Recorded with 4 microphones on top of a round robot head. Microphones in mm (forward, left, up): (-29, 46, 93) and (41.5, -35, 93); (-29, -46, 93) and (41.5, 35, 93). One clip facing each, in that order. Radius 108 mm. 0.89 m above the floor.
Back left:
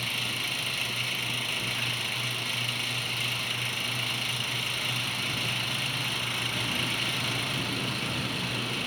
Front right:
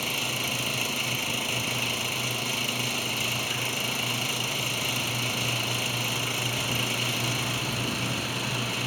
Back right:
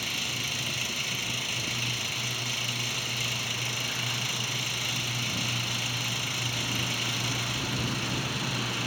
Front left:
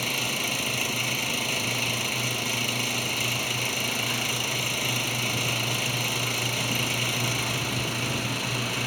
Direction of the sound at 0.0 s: 5° left.